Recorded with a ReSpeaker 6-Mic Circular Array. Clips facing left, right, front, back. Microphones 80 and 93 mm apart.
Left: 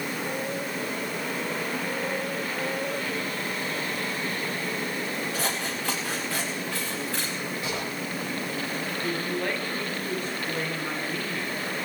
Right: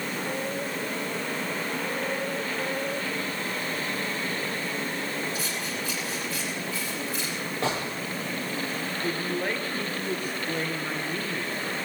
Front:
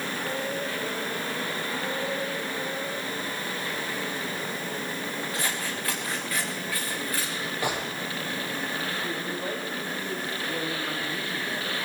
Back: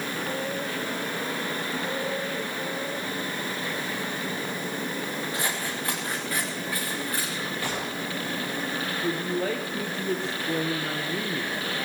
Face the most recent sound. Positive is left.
turn(degrees=-170)